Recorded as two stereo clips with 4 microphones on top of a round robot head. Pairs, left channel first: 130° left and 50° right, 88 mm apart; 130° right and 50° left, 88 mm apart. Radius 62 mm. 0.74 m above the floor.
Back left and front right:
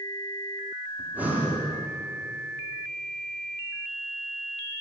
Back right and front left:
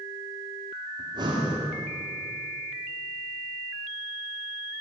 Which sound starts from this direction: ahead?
Breathing, at 1.0 s.